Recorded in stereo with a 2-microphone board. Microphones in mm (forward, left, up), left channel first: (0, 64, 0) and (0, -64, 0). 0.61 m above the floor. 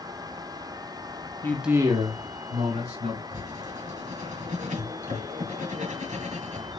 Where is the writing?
80° right, 2.0 m.